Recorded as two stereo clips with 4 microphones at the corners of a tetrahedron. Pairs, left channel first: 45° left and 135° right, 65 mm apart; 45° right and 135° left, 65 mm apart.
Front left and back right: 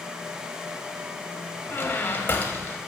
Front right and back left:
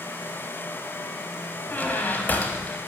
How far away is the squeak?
About 0.9 m.